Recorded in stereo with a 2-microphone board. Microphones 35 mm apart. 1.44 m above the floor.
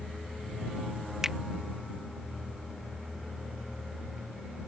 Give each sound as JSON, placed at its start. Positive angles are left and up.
{"t": 1.2, "sound": "a finger snap", "side_deg": -10}